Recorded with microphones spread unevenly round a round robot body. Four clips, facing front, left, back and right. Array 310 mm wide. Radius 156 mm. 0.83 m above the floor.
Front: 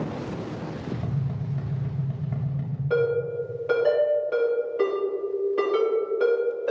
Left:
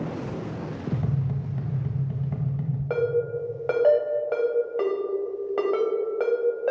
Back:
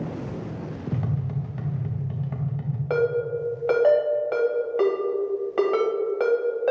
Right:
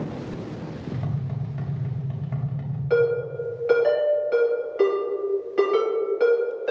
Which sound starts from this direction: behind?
A ringtone, at 2.9 s.